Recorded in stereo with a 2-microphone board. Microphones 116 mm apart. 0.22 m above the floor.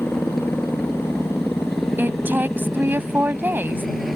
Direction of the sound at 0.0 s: Centre (ahead or behind).